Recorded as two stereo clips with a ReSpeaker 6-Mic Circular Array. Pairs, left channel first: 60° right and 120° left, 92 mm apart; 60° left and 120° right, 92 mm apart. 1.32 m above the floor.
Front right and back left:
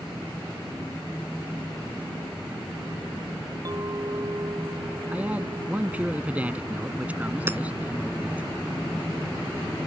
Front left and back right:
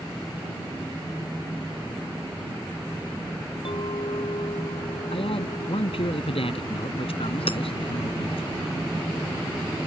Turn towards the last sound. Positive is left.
turn(degrees=55)